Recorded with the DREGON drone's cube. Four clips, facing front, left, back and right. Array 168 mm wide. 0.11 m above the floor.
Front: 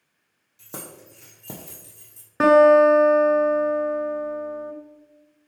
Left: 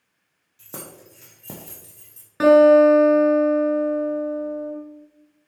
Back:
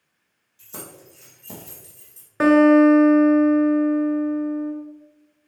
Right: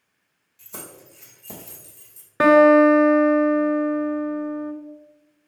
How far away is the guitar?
About 1.0 m.